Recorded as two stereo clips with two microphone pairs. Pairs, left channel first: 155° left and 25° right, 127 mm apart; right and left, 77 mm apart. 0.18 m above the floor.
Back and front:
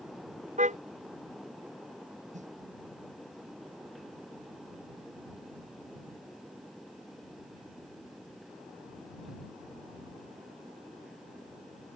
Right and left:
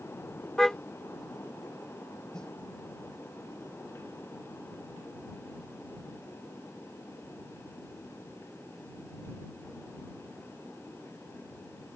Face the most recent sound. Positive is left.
turn(degrees=-10)